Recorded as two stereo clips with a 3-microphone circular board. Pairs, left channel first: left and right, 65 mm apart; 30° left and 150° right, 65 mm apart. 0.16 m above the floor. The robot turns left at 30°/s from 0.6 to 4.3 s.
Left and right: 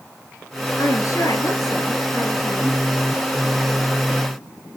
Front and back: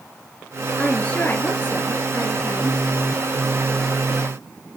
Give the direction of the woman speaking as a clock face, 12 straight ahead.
9 o'clock.